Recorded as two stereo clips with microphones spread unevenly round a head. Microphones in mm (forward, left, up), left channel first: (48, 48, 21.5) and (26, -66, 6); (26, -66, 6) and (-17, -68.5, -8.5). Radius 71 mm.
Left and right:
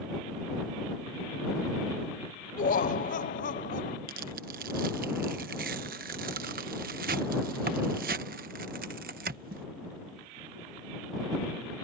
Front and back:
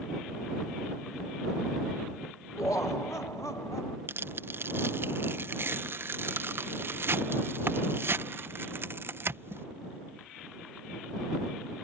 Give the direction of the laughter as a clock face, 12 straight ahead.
10 o'clock.